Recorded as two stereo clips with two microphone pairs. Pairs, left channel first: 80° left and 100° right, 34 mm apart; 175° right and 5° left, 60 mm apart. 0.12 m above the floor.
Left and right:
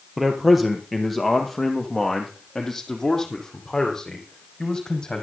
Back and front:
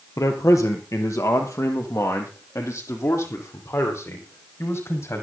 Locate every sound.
0.2 s a man speaking: straight behind, 2.5 m; by 5.2 s 150° left, 4.5 m